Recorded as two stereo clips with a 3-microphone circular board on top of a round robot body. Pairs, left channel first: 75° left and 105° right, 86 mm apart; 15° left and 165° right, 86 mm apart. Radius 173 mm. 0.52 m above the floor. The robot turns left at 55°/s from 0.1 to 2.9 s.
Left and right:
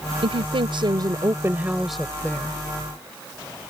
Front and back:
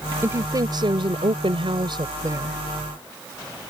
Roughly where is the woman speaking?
Right.